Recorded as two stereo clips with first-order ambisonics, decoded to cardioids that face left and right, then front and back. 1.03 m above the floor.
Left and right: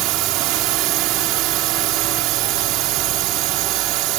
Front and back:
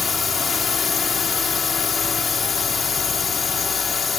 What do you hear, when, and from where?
0.0 s a drone: 70° right